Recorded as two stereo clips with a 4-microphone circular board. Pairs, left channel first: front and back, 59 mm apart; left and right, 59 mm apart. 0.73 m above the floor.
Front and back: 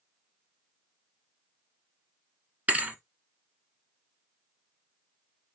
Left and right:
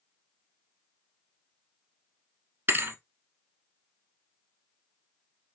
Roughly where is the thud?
Behind right.